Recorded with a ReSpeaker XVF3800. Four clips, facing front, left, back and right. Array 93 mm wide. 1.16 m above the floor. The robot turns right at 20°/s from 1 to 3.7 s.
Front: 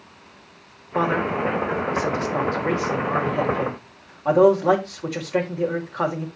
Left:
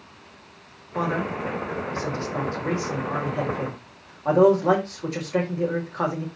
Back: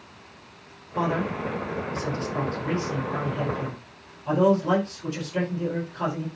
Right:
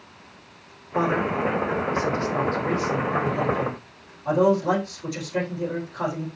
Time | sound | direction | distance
0.9 | a man speaking | 20° right | 4 m